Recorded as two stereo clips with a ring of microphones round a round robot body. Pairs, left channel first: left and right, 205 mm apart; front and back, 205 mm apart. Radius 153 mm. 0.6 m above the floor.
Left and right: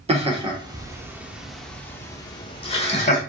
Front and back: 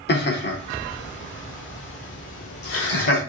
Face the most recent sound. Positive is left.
turn(degrees=40)